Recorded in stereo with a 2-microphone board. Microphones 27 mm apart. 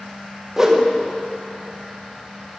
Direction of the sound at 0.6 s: 20° right (ahead or behind).